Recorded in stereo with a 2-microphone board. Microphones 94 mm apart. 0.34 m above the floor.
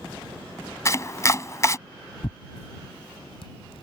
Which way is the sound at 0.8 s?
35° left (ahead or behind).